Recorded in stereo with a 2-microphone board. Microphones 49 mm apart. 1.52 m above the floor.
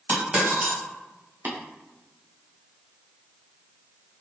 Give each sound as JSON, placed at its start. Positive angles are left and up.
{"t": 0.1, "sound": "a dropped coin", "side_deg": -20, "distance_m": 1.6}
{"t": 1.4, "sound": "tapping", "side_deg": -50, "distance_m": 0.8}